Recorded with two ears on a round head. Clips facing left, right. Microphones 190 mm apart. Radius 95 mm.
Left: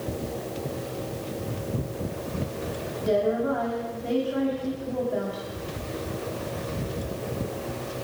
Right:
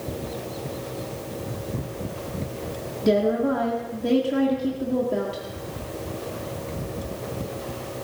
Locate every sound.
3.0 s a woman speaking: 55° right (ahead or behind), 2.0 m